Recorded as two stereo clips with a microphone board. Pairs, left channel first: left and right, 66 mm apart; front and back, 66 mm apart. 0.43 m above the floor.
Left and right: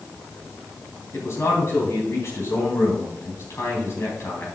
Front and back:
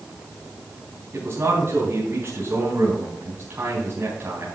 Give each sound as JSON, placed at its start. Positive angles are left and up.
{"t": 1.1, "sound": "a man speaking", "azimuth_deg": 130, "distance_m": 4.0}